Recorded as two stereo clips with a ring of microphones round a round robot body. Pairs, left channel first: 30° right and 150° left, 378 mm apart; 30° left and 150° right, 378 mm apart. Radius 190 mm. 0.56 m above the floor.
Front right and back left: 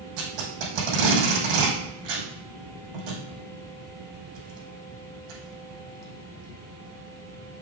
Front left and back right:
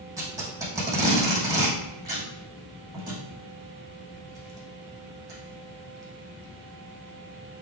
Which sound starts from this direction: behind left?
Tape being pulled, at 0.2 s.